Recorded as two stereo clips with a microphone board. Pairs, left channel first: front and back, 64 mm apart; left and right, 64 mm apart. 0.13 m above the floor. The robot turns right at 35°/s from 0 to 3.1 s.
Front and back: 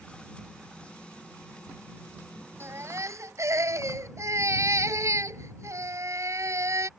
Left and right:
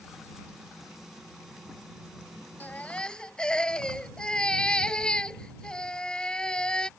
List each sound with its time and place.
2.6 s a baby crying: 145° left; by 6.9 s 165° left